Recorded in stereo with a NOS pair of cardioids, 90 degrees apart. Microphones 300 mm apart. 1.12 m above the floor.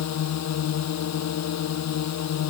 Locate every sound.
0.0 s a drone: 65° left